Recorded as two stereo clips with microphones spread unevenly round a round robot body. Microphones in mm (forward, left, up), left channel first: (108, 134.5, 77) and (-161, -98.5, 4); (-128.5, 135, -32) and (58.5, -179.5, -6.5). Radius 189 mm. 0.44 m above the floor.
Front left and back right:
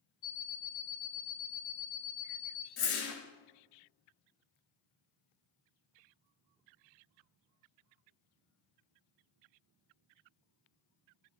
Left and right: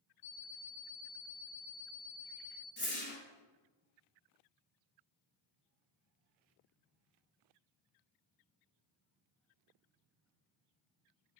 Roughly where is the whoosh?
Ahead left.